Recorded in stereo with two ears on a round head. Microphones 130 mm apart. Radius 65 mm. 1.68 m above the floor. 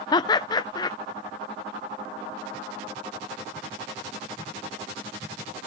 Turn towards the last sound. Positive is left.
turn(degrees=30)  # may be behind; listen again after turning